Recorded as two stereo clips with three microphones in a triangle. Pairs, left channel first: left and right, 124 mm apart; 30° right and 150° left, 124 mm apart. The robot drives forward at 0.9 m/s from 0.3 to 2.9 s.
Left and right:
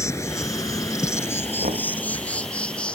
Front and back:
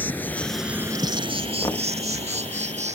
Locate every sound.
0.0 s an insect: 35° left; by 3.0 s 170° left
1.6 s knocking: 90° right; by 1.9 s 95° right